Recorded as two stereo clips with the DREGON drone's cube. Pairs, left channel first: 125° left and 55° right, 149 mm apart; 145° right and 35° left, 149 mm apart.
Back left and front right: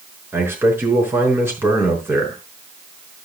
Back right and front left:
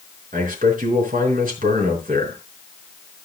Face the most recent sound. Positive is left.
turn(degrees=20)